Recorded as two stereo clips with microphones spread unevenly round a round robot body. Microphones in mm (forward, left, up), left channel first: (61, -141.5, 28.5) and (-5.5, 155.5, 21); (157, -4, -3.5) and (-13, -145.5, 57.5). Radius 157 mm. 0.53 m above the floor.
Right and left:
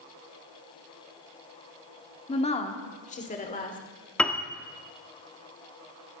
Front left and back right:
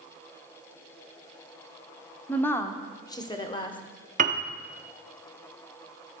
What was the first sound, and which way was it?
A woman speaking, 15° right.